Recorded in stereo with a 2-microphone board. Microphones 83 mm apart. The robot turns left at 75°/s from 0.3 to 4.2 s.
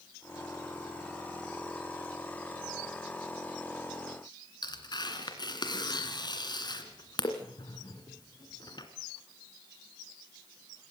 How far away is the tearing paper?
About 2.5 m.